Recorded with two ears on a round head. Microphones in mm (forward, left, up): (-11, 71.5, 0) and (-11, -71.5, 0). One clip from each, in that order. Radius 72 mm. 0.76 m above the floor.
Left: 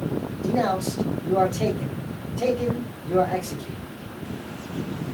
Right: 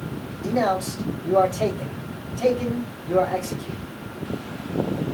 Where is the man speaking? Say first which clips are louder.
Right 2 dB; 10° right (ahead or behind), 1.8 m.